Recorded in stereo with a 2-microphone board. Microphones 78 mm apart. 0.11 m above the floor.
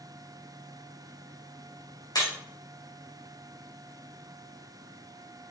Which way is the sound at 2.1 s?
65° left (ahead or behind).